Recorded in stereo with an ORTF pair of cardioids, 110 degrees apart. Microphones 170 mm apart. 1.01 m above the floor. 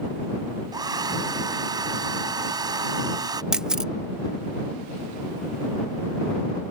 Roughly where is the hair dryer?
Ahead right.